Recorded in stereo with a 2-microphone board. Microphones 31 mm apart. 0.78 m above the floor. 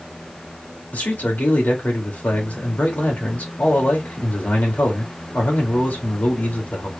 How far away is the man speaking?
About 2 m.